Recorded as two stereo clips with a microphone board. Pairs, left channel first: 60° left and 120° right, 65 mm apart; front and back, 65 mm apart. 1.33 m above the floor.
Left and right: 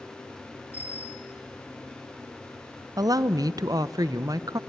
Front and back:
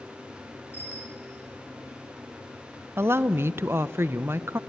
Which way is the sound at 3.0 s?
130° right.